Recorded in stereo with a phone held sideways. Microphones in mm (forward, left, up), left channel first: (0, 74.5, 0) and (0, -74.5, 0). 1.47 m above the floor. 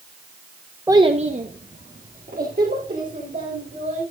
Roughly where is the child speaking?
Centre.